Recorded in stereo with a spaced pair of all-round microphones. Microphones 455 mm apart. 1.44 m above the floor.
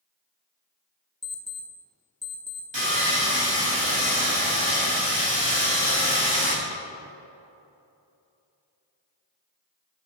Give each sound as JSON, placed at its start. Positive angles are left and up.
{"t": 1.2, "sound": "an alarm clock", "side_deg": 15, "distance_m": 0.5}
{"t": 2.7, "sound": "sawing", "side_deg": -70, "distance_m": 1.8}